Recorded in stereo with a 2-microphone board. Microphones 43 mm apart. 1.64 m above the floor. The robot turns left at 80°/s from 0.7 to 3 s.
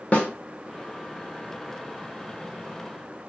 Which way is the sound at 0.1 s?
35° left (ahead or behind).